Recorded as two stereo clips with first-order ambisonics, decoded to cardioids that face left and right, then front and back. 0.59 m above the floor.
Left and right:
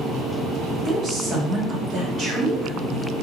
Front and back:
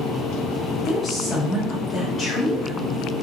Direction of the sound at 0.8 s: 55° right.